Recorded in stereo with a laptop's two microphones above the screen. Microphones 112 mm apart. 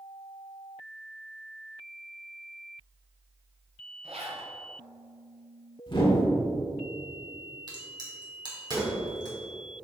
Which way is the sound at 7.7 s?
40° right (ahead or behind).